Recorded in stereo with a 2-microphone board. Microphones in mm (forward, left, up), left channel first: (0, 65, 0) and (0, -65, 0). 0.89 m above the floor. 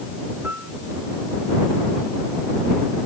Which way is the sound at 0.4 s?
15° right (ahead or behind).